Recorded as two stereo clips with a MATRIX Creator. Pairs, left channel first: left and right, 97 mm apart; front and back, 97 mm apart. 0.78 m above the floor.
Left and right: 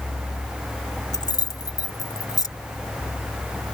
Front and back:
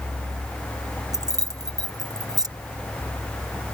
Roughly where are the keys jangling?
Behind left.